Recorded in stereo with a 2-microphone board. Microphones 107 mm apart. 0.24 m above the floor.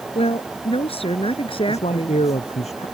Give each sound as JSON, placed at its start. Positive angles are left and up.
{"t": 0.1, "sound": "a woman speaking", "side_deg": 70}
{"t": 1.6, "sound": "a man speaking", "side_deg": 85}